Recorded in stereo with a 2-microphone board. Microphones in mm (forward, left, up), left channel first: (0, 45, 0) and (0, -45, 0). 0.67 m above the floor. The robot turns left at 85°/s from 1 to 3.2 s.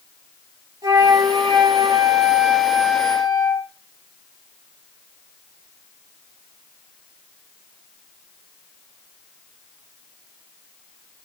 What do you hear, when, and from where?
0.8 s a flute: 40° right, 3.5 m; by 3.6 s 135° left, 3.5 m